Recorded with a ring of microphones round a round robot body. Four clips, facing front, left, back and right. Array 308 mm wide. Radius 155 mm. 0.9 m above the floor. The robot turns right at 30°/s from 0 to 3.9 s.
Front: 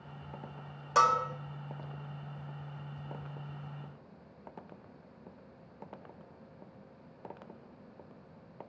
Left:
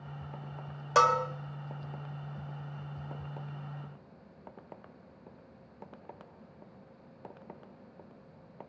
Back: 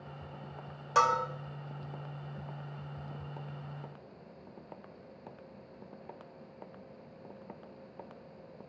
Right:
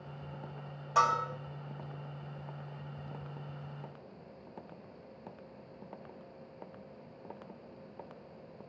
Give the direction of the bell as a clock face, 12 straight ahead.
9 o'clock.